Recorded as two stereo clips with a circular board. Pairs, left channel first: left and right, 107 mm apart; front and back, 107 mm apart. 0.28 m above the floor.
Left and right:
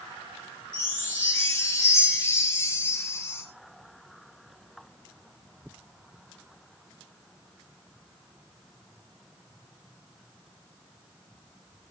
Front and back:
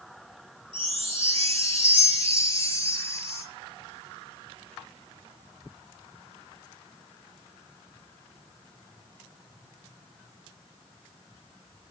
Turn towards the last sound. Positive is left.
turn(degrees=160)